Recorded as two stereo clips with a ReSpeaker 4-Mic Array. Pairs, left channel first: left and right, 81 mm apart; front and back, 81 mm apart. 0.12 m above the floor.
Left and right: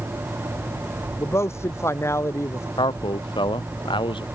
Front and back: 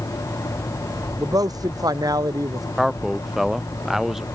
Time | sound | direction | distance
1.2 | a man speaking | 145° left | ?
2.8 | a man speaking | 95° left | ?